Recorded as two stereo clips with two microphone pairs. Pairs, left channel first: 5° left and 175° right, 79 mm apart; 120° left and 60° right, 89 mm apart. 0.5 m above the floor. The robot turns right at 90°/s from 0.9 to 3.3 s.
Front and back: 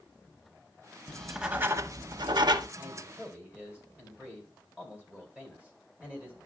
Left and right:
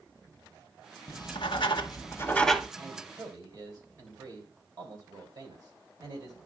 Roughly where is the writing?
Left.